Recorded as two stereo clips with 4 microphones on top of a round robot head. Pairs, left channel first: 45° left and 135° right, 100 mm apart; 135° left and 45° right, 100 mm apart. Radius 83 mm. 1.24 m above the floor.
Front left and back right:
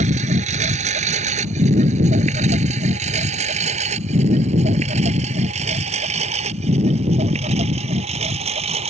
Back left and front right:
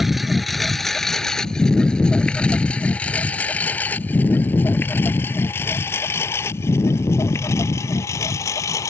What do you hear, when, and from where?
0.0 s a lawn mower: 130° right; by 8.9 s 160° right